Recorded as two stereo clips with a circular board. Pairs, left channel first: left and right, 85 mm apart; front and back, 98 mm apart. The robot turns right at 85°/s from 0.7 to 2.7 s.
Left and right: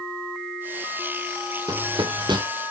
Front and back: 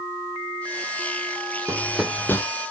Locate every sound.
1.7 s running footsteps: 125° right, 1.1 m; by 2.4 s 60° right, 1.1 m